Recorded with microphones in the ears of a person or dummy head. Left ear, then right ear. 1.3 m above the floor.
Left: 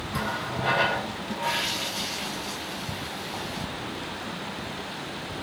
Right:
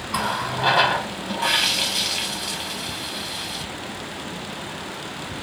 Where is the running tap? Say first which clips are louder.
Right 6 dB; 45° right (ahead or behind), 0.7 m.